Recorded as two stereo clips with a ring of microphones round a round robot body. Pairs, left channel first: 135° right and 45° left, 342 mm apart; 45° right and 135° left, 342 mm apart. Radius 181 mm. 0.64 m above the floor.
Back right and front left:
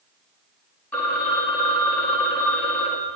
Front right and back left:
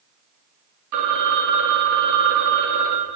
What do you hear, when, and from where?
0.9 s a phone ringing: 140° left, 0.8 m